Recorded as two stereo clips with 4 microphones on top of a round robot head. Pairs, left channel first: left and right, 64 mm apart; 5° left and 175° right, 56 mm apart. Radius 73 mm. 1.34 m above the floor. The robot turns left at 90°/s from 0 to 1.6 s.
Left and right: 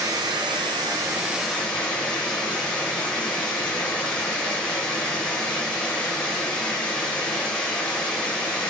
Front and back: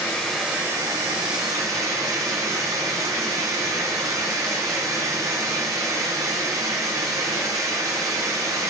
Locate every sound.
0.0 s running water: 50° right, 3 m; by 8.7 s 165° left, 3 m